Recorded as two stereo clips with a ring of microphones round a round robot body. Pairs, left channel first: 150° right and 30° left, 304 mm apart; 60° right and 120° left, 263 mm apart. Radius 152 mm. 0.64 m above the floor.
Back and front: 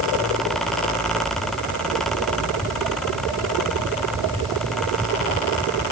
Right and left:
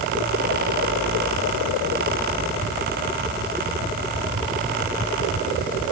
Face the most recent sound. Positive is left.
No sound to turn to.